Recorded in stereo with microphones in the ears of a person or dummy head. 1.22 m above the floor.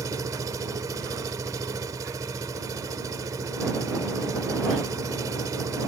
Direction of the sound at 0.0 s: 20° right (ahead or behind).